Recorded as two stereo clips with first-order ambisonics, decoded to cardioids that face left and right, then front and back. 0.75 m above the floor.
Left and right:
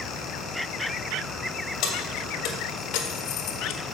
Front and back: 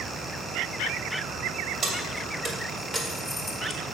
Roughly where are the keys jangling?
Behind left.